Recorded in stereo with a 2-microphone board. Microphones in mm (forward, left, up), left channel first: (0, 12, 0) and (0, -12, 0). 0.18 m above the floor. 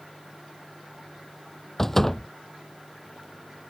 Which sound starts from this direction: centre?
A door slam, at 1.8 s.